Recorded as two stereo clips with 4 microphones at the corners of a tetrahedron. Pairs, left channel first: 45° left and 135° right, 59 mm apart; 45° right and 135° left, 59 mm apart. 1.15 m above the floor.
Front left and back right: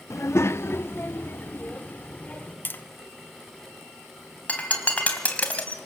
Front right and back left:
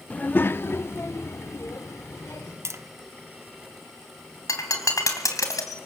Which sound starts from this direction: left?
Tapping, at 2.6 s.